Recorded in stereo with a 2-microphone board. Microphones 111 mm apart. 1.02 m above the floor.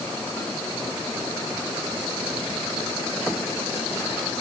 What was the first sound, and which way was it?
Only background noise.